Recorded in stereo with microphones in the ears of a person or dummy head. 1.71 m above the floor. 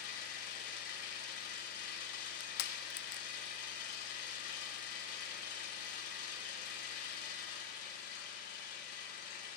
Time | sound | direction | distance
0.0 | an engine running | 55° left (ahead or behind) | 5 m
2.1 | crushing | 55° left (ahead or behind) | 0.8 m